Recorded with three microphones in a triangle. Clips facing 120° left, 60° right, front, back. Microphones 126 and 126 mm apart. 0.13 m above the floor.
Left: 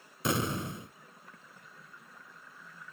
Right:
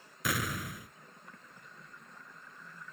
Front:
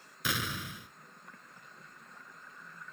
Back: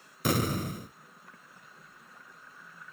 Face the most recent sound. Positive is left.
turn(degrees=170)